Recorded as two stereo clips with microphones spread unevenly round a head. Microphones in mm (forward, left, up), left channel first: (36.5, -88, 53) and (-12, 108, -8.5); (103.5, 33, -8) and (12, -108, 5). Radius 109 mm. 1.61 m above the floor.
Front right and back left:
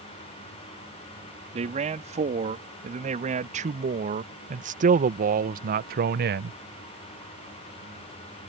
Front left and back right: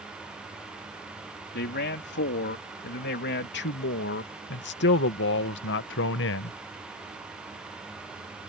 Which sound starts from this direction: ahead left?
A man speaking, at 1.5 s.